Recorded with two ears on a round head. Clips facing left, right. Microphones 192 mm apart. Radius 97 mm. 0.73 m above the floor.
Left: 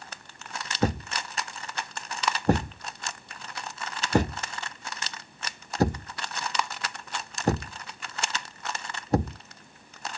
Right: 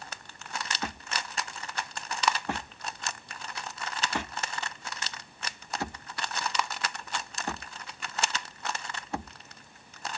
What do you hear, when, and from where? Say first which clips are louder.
0.8 s a thud: left 9 dB; 35° left (ahead or behind)